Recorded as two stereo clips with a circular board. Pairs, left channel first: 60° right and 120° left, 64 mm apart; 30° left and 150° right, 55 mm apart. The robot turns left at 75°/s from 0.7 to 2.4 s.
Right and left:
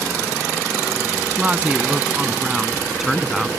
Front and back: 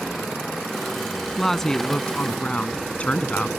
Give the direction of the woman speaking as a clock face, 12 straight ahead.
8 o'clock.